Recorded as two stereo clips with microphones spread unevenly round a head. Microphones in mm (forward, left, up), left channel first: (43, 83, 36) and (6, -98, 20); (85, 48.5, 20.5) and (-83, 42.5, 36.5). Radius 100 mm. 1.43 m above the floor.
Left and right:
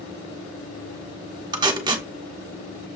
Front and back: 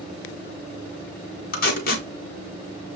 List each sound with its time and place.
1.5 s tape being pulled: 35° right, 1.0 m